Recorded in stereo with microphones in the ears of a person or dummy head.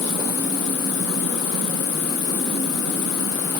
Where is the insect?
85° left.